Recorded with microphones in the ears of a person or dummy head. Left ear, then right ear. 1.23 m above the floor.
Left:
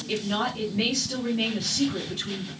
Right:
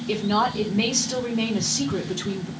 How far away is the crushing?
I don't hear crushing.